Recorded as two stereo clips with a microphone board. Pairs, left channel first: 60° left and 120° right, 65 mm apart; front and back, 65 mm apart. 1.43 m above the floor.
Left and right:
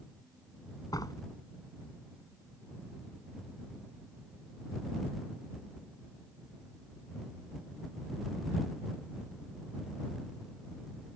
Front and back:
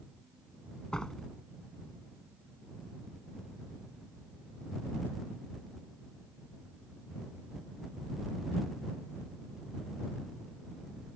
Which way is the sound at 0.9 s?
80° left.